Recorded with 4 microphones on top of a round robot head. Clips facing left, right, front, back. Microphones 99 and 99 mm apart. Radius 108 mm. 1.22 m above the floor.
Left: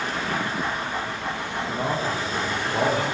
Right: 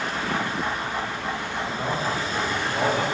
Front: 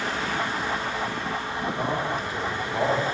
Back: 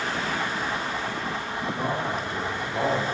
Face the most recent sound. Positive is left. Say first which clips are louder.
# left 2 dB, front 1 dB
turn(degrees=85)